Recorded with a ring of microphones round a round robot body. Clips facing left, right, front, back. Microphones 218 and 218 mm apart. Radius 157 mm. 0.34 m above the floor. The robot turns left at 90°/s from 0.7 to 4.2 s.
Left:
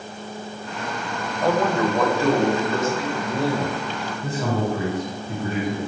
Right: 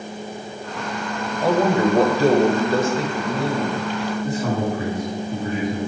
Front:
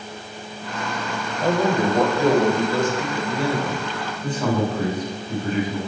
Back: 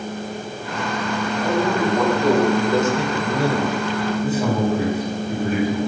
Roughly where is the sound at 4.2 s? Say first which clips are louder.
Left 1 dB, even; left.